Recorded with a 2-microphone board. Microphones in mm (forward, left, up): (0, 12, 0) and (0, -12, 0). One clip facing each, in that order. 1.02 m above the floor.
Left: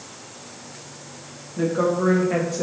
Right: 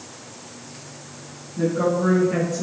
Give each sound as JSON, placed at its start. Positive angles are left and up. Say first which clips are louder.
{"t": 1.6, "sound": "a woman speaking", "louder": "even", "side_deg": 45, "distance_m": 1.2}